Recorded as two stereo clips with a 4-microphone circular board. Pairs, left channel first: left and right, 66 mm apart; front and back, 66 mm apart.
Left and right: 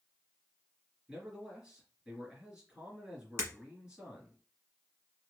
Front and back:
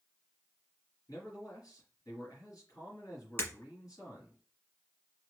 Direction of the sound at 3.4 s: 50° right.